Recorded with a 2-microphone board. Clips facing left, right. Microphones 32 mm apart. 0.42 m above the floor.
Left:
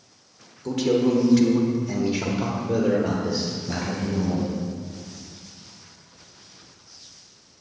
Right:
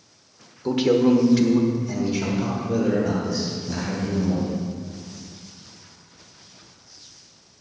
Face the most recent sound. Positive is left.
turn(degrees=45)  # may be behind; listen again after turning